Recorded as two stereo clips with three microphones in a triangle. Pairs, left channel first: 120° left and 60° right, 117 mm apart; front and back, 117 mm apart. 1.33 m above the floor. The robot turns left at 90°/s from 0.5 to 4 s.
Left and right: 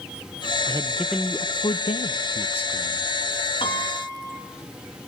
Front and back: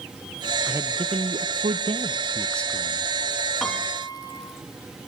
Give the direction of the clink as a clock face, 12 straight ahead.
I don't hear a clink.